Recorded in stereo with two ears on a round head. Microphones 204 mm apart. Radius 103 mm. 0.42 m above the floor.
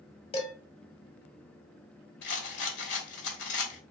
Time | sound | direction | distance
0.3 | dishes clattering | 25° left (ahead or behind) | 1.0 m
2.2 | a rattle | 50° left (ahead or behind) | 2 m